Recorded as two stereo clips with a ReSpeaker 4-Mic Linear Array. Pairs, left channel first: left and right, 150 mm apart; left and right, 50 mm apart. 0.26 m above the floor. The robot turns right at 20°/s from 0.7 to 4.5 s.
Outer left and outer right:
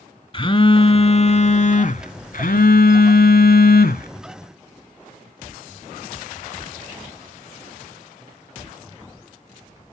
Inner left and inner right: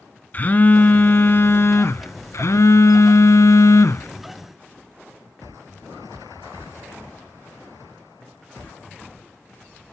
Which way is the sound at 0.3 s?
35° left.